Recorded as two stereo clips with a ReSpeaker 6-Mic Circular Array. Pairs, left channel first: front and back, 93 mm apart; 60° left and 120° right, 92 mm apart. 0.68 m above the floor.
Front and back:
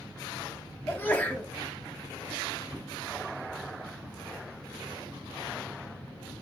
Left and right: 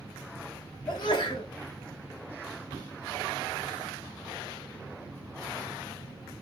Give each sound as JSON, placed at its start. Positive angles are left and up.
{"t": 0.9, "sound": "a sneeze", "azimuth_deg": 70, "distance_m": 0.9}